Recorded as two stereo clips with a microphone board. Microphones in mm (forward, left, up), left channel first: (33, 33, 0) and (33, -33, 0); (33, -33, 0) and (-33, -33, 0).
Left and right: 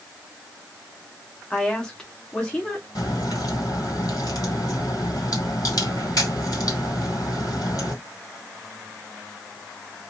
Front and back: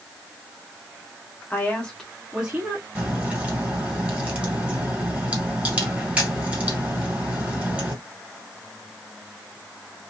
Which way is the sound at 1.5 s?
25° left.